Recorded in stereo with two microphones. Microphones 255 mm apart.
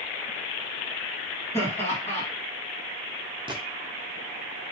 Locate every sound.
1.5 s laughter: 10° left (ahead or behind), 2 m
3.5 s a gunshot: 20° right (ahead or behind), 0.6 m